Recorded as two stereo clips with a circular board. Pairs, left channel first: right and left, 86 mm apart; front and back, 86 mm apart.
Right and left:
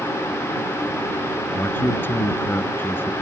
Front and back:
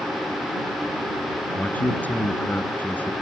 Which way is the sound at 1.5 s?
55° right.